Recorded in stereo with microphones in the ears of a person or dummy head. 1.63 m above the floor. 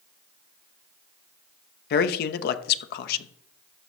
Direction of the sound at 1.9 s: 60° left (ahead or behind).